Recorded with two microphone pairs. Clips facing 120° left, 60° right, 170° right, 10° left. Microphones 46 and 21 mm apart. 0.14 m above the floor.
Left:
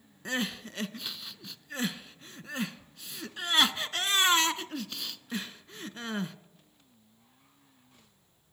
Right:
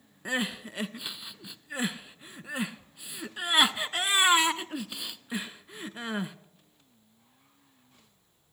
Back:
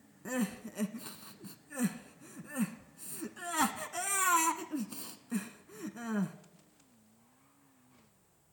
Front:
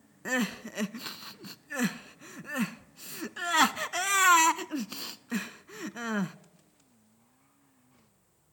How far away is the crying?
About 0.5 m.